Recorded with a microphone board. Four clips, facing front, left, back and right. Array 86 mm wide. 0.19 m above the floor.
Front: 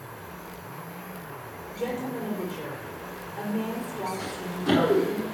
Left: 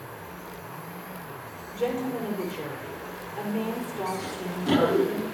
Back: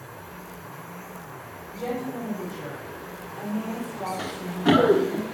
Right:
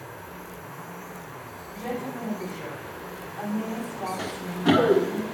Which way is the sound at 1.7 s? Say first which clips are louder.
Left 5 dB, back 1 dB; 75° left.